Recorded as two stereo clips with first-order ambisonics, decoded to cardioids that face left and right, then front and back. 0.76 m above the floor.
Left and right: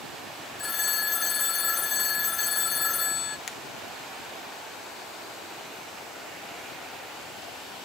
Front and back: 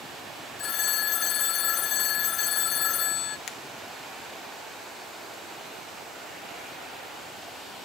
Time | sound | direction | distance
0.6 | a phone ringing | 35° left | 0.5 m
3.5 | a finger snap | 45° left | 1.1 m